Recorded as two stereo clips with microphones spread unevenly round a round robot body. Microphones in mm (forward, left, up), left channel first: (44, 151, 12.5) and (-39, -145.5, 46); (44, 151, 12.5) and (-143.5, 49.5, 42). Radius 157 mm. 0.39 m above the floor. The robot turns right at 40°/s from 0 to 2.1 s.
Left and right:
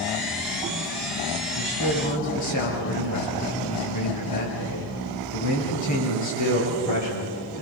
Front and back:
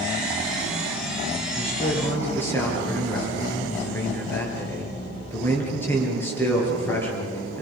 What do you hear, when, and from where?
1.6 s a man speaking: 85° left, 9.5 m; by 7.6 s 110° left, 9.5 m